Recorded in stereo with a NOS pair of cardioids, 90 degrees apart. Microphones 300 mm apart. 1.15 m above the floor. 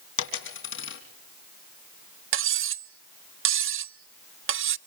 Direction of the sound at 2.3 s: 45° right.